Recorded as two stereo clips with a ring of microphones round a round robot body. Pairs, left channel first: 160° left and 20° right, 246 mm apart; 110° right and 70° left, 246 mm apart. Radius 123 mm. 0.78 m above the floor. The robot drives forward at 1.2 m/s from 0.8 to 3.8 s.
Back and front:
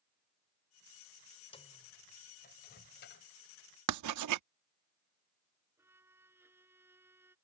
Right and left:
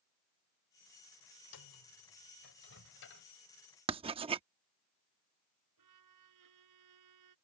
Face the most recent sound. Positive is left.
turn(degrees=60)